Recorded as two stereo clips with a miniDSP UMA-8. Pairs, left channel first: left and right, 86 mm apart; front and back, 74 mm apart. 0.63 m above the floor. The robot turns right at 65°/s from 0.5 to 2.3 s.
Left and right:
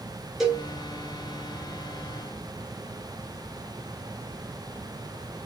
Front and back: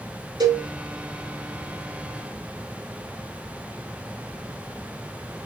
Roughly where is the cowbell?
Behind.